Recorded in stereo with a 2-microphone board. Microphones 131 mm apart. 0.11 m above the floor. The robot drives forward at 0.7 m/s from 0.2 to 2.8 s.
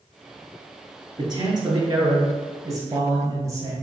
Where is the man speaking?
35° right (ahead or behind), 1.5 m; by 3.7 s 25° right (ahead or behind), 2.0 m.